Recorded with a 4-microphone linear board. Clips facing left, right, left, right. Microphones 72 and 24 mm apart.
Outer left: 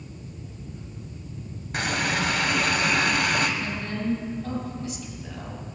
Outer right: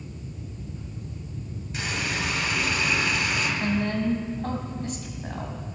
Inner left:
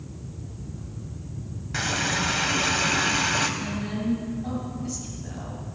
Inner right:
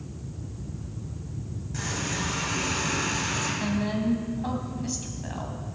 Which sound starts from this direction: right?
A woman speaking, at 3.6 s.